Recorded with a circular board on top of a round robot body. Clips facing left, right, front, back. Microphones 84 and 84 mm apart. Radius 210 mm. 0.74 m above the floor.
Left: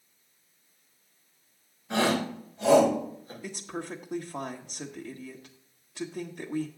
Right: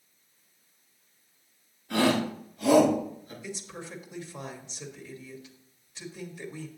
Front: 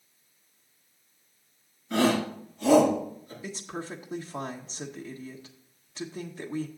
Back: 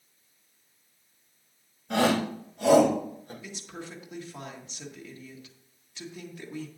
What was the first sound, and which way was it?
A shout, 160° left.